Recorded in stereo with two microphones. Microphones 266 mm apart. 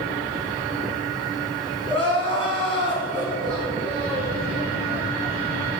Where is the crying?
55° right (ahead or behind), 1.8 m.